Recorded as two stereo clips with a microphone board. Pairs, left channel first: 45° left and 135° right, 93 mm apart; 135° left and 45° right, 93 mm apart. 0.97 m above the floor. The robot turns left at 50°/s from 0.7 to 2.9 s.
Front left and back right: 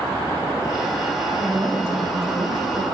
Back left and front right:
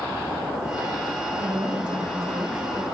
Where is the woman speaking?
50° right, 3.5 m; by 2.8 s 125° right, 3.5 m.